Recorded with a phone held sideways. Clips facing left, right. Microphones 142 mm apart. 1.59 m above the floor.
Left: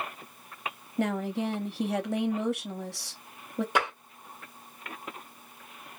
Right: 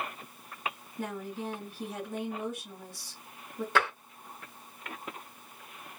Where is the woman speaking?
75° left (ahead or behind), 0.6 m.